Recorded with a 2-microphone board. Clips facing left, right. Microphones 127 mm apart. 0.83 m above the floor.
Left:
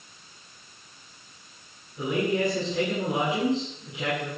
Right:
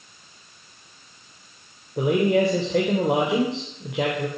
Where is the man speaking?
70° right (ahead or behind), 3.5 m.